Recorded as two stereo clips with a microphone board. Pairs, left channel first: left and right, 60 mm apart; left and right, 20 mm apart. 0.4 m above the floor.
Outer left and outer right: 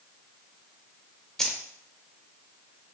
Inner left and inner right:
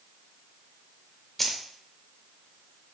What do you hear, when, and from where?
1.4 s keys jangling: 5° left (ahead or behind), 0.5 m